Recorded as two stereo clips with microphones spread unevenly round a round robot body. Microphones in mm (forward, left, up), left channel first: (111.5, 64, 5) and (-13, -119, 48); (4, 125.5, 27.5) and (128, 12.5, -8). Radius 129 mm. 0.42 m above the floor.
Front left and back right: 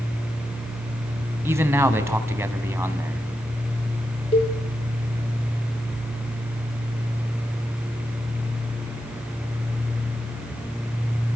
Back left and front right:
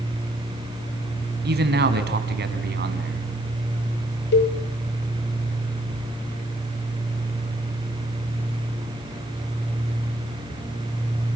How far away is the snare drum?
I don't hear a snare drum.